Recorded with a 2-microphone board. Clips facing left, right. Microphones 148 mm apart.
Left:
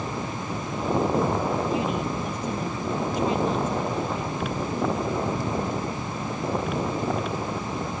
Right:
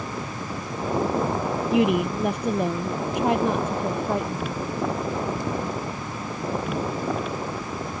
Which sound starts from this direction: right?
A woman speaking, at 1.7 s.